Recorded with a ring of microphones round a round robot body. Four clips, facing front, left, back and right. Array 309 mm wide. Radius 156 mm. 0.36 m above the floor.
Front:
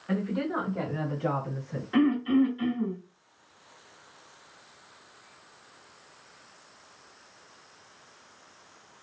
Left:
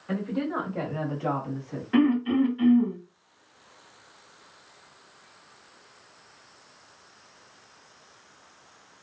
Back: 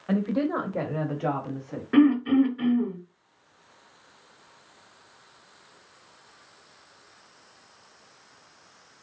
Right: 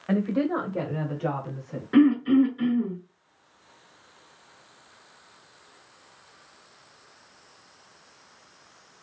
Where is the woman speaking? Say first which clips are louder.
Right 5 dB, back 4 dB; 130° right, 1.3 m; by 1.8 s 170° left, 2.0 m.